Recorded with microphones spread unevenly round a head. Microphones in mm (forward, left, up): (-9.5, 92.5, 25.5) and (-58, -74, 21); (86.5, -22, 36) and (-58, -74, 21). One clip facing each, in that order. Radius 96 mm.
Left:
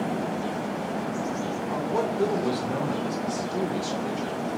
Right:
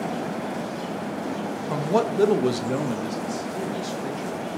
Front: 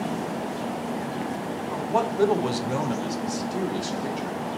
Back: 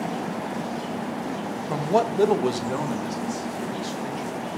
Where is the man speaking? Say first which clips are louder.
Right 5 dB, back 4 dB; 130° right, 1.2 m; by 4.4 s 15° right, 3 m.